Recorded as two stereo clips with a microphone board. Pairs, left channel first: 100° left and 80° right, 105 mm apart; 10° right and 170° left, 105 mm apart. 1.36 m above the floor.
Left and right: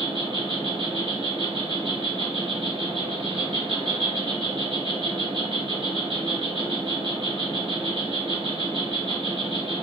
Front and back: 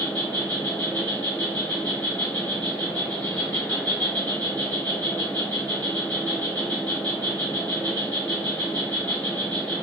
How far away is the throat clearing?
I don't hear throat clearing.